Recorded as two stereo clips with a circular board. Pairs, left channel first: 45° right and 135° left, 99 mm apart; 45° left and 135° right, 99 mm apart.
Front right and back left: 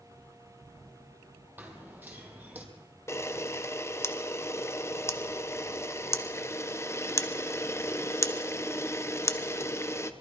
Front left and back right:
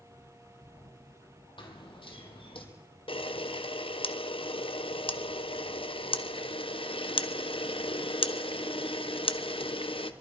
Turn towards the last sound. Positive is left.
turn(degrees=20)